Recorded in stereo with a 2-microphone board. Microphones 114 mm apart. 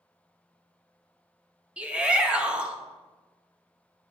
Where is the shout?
10° right (ahead or behind), 1.0 m.